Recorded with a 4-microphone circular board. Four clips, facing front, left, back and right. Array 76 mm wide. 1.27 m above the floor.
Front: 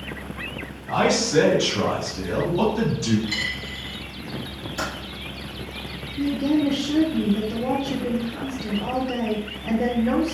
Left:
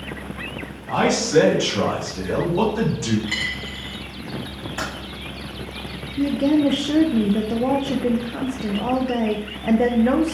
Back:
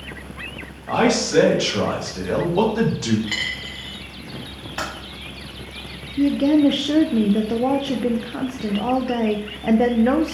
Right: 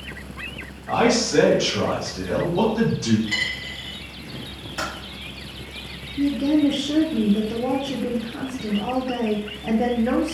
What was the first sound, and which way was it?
A man speaking, 170° left.